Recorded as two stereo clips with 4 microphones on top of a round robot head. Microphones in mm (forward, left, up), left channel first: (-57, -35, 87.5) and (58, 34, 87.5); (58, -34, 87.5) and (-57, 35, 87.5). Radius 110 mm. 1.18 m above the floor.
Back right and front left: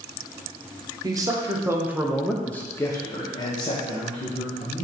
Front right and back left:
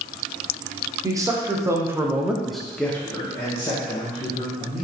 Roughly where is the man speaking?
Left.